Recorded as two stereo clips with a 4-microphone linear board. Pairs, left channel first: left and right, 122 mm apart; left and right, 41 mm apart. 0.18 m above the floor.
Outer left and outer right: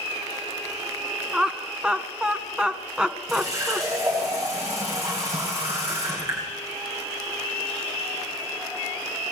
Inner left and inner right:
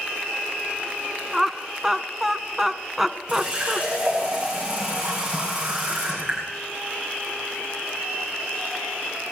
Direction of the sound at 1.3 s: 5° right (ahead or behind).